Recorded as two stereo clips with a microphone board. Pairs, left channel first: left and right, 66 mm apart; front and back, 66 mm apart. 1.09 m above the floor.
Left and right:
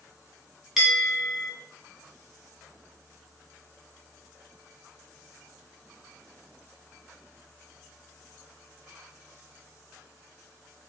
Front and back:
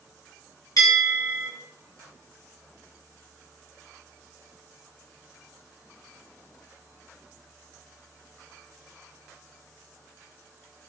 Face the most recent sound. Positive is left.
turn(degrees=-5)